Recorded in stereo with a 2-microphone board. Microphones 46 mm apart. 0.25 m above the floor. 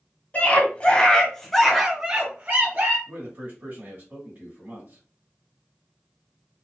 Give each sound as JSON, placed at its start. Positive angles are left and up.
{"t": 0.3, "sound": "a scream", "side_deg": 35, "distance_m": 1.5}
{"t": 3.1, "sound": "a man speaking", "side_deg": -40, "distance_m": 2.0}